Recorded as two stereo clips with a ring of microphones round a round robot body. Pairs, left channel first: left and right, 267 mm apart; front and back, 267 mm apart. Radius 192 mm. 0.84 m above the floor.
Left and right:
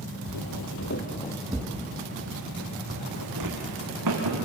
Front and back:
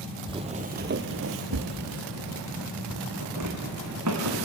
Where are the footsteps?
110° left, 1.6 m; by 4.4 s 125° right, 4 m.